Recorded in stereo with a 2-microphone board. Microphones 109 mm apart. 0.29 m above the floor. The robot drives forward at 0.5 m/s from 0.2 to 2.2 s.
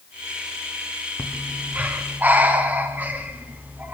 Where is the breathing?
15° right (ahead or behind), 2.5 m.